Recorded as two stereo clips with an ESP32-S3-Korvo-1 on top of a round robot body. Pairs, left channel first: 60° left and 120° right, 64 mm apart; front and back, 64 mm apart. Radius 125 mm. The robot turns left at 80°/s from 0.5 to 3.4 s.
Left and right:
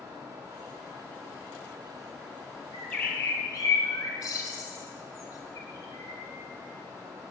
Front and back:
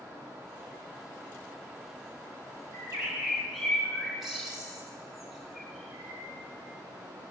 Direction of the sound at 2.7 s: 145° left.